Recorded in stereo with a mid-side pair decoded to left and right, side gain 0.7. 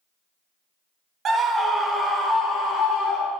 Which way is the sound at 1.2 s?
35° right.